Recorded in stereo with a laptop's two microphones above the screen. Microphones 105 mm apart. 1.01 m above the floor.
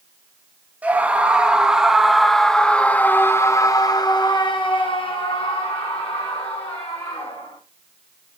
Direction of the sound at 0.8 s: 15° right (ahead or behind).